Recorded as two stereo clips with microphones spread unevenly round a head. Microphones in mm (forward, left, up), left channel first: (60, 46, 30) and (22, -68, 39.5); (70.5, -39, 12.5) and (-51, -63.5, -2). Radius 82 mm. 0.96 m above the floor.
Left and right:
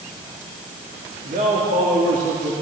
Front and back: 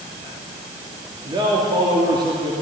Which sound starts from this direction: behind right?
A man speaking, at 1.2 s.